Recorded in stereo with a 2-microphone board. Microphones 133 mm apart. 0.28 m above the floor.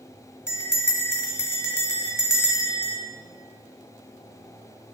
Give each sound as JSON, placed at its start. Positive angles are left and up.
{"t": 0.5, "sound": "a bell", "side_deg": 20, "distance_m": 1.6}